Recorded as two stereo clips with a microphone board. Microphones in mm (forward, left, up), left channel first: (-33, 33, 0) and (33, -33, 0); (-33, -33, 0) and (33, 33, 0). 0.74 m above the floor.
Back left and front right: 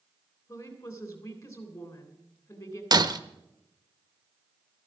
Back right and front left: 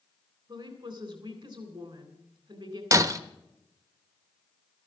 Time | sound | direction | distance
0.5 | a woman speaking | 75° left | 3 m
2.9 | breaking glass | 5° right | 0.7 m